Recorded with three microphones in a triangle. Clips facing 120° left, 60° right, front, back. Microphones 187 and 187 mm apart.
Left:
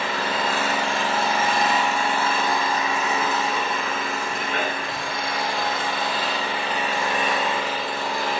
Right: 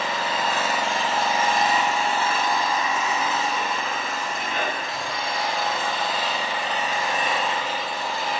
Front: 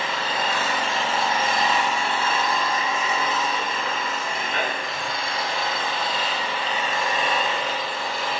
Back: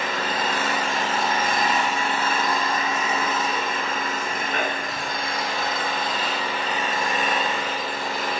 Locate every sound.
0.0 s an engine running: 140° left, 1.7 m